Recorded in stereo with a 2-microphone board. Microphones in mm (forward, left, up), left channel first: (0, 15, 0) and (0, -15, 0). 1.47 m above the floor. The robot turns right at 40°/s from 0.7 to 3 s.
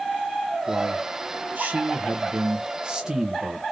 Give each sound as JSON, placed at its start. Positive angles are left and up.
{"t": 0.7, "sound": "a man speaking", "azimuth_deg": -115, "distance_m": 1.1}